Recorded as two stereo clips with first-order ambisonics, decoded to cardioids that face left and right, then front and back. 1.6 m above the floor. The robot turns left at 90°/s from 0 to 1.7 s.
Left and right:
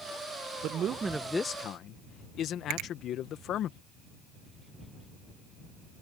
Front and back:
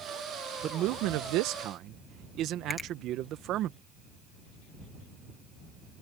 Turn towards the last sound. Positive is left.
turn(degrees=-80)